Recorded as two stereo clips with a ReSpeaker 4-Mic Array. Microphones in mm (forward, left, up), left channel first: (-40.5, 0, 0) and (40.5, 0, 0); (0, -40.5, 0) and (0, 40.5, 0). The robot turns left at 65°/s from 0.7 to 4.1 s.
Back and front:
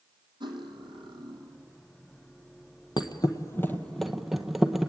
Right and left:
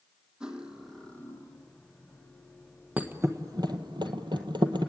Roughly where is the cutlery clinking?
Ahead.